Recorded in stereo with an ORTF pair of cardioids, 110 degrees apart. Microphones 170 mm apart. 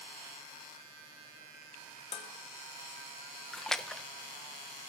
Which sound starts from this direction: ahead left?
Dishes clattering, at 2.1 s.